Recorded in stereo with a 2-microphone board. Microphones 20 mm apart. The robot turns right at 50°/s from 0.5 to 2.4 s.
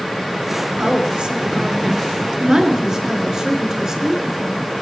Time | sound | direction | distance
0.8 | a woman speaking | 125° right | 3.5 m